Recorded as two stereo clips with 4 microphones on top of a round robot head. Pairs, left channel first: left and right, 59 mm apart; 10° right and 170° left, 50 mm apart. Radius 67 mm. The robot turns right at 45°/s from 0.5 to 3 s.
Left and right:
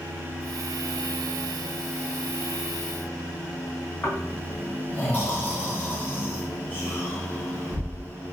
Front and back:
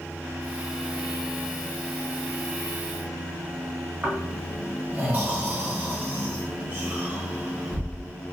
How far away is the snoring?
About 1.2 m.